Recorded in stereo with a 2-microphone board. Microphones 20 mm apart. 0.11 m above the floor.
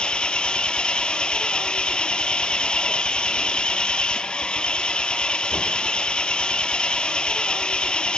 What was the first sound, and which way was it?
An engine running, 60° left (ahead or behind).